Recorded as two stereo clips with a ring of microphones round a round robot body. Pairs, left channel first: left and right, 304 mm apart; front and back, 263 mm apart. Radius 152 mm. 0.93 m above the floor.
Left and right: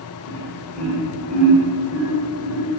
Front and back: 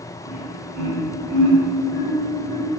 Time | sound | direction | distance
0.2 | laughter | 170° left | 3 m